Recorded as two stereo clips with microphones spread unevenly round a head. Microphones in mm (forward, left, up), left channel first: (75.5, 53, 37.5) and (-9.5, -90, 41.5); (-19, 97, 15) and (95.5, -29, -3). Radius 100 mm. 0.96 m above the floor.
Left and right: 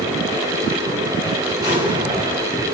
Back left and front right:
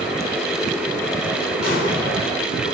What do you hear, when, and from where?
1.6 s an explosion: 170° left, 6.5 m